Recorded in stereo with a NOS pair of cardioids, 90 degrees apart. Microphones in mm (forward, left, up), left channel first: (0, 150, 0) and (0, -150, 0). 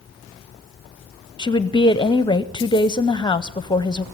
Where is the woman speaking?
15° left, 0.7 m.